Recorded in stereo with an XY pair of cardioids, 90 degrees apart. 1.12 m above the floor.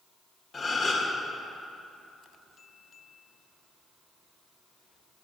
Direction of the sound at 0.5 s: 45° left.